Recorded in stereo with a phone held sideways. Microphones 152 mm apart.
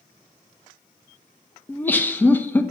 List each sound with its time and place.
1.7 s laughter: 10° left (ahead or behind), 1.2 m